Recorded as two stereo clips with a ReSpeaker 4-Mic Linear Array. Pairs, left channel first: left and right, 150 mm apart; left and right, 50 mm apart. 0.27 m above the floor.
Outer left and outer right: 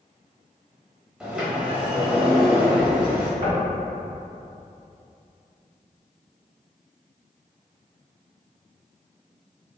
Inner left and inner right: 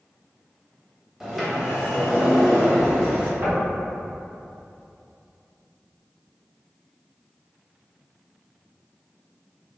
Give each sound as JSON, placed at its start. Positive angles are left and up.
{"t": 1.2, "sound": "a sliding door", "side_deg": -5, "distance_m": 0.8}
{"t": 3.4, "sound": "knocking", "side_deg": -40, "distance_m": 1.3}